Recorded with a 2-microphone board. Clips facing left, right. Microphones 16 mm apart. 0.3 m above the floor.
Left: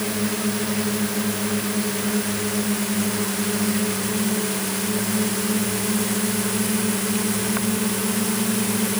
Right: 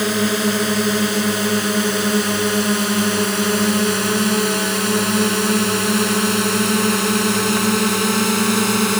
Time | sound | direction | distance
0.0 | a drone | 65° right (ahead or behind) | ?